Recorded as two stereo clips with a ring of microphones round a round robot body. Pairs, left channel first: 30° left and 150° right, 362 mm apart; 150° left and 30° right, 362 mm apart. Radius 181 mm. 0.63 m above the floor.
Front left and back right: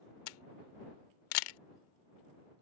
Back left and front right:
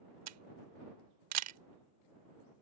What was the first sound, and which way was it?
A camera shutter, 20° left.